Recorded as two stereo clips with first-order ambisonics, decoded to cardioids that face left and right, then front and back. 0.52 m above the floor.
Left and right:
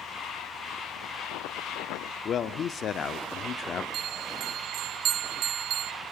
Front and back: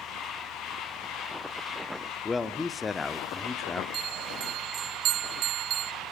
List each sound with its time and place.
2.2 s a man speaking: 65° left, 0.8 m
3.9 s a bell: 140° right, 0.8 m